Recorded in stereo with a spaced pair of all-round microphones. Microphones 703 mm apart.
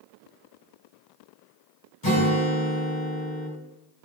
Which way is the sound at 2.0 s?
30° left (ahead or behind).